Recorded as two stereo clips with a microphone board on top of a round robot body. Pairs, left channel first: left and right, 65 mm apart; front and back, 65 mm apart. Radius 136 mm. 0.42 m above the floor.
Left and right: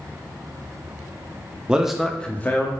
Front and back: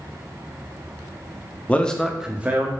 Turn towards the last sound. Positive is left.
turn(degrees=130)